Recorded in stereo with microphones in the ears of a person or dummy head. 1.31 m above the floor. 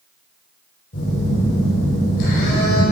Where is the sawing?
I don't hear sawing.